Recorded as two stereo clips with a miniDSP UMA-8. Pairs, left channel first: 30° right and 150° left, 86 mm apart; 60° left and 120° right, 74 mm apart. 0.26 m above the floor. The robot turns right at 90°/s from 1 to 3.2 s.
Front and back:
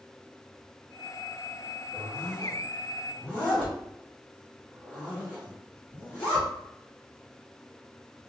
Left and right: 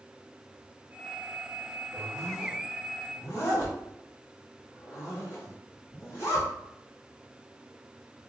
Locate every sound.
1.9 s a zipper: 80° right, 1.9 m; by 6.5 s 35° left, 1.9 m